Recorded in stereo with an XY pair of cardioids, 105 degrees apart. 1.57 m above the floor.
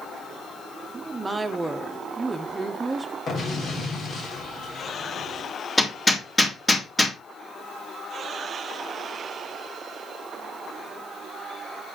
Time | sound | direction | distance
0.9 | a woman speaking | 20° right | 1.5 m
3.3 | an explosion | 50° left | 3.5 m
5.8 | hammering | 15° left | 2.5 m